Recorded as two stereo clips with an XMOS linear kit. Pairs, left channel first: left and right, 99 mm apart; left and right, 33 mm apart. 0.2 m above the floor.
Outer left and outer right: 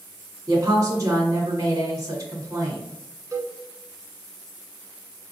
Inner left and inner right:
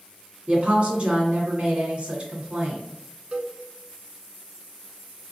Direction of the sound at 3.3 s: 35° right (ahead or behind).